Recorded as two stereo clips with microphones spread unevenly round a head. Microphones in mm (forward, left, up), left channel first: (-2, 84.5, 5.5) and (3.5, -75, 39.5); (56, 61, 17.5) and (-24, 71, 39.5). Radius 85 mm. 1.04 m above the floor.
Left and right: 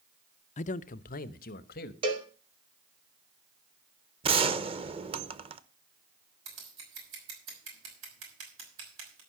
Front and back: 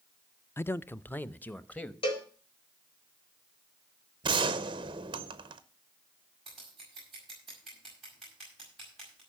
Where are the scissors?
95° right, 6 m.